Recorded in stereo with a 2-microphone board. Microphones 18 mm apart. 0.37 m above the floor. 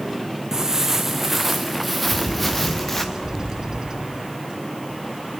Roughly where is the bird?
Right.